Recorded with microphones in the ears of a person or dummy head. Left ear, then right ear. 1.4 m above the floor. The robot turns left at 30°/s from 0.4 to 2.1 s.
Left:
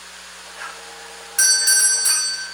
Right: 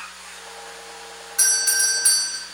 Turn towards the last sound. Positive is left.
turn(degrees=-5)  # may be behind; listen again after turning